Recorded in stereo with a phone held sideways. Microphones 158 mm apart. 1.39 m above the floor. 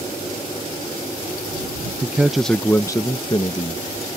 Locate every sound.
2.0 s a man speaking: 15° right (ahead or behind); by 4.2 s 45° left (ahead or behind)